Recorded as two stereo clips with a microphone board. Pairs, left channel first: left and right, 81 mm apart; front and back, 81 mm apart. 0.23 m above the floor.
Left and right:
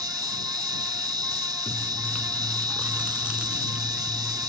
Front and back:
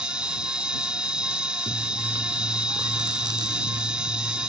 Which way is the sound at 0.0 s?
100° right.